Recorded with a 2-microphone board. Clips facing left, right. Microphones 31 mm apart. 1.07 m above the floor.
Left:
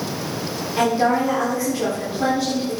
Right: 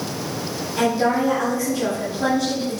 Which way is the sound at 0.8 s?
25° left (ahead or behind).